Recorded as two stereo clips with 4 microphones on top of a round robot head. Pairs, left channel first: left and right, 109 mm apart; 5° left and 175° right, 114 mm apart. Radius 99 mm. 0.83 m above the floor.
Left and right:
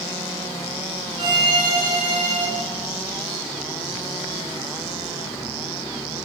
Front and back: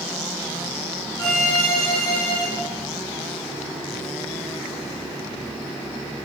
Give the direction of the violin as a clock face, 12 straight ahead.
2 o'clock.